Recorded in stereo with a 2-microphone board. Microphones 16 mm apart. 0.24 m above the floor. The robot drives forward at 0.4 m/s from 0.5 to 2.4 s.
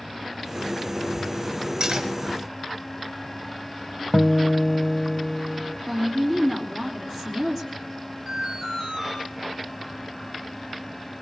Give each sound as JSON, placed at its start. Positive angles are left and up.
{"t": 1.8, "sound": "cutlery clinking", "side_deg": -55, "distance_m": 2.5}
{"t": 4.1, "sound": "a guitar", "side_deg": 40, "distance_m": 0.7}
{"t": 5.9, "sound": "a woman speaking", "side_deg": -35, "distance_m": 3.5}
{"t": 8.3, "sound": "an alarm", "side_deg": -20, "distance_m": 7.0}